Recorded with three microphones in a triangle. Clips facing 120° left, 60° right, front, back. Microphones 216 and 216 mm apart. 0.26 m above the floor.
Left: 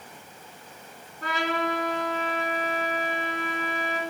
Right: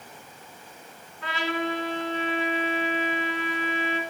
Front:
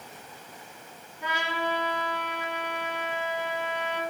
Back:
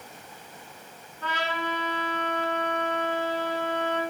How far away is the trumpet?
About 1.4 m.